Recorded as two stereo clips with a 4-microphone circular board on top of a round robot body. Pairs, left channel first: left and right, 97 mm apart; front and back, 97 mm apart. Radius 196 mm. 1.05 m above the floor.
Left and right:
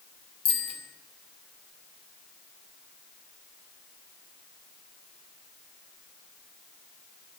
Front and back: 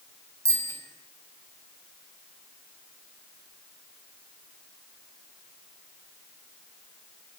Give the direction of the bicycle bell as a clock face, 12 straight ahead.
8 o'clock.